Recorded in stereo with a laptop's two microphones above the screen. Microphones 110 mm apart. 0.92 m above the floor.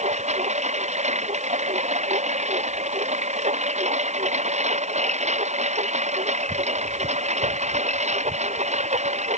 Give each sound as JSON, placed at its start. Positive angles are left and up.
{"t": 0.0, "sound": "a lawn mower", "side_deg": -85}